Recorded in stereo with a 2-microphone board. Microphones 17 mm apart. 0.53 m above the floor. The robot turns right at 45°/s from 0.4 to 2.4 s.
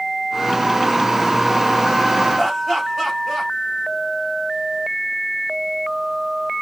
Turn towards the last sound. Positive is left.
turn(degrees=0)  # may be behind; listen again after turning